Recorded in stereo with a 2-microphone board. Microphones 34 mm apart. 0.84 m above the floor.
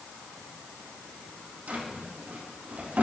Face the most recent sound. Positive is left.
turn(degrees=-55)  # may be behind; listen again after turning